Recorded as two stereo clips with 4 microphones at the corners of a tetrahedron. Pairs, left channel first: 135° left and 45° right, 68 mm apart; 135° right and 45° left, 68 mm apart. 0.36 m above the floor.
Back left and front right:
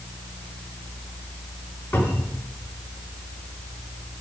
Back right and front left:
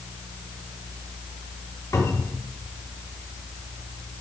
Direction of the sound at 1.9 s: 165° right.